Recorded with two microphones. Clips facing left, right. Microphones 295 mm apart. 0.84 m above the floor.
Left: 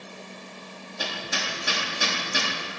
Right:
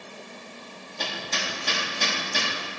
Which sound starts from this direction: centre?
Hammering, at 1.0 s.